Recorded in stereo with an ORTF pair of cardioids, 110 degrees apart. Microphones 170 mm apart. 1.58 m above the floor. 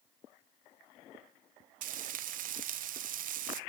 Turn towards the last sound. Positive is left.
turn(degrees=-55)